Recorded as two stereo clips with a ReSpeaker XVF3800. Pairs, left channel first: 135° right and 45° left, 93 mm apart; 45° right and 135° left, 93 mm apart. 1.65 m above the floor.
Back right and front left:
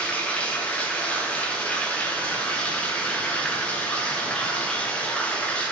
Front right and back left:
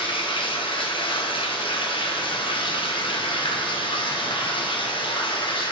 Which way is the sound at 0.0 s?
60° right.